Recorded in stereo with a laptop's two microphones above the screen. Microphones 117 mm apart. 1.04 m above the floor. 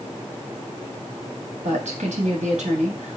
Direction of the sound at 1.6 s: 80° right.